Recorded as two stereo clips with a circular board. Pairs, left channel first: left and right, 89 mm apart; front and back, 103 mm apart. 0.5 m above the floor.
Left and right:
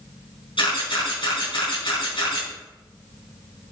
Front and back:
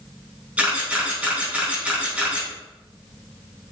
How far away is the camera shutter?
About 3.5 m.